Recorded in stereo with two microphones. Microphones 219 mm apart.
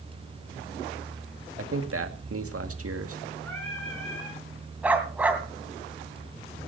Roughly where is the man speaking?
Right.